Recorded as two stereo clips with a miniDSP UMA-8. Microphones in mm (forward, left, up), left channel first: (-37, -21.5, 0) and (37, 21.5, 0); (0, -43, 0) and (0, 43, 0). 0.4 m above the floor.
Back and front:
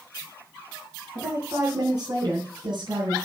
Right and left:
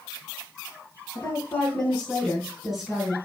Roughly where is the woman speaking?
Ahead right.